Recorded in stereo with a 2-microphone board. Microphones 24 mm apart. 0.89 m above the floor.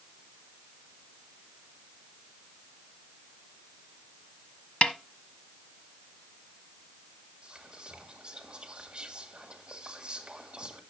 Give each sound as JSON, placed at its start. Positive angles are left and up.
{"t": 4.8, "sound": "a snare drum", "side_deg": 50, "distance_m": 1.0}
{"t": 7.4, "sound": "whispering", "side_deg": -30, "distance_m": 1.4}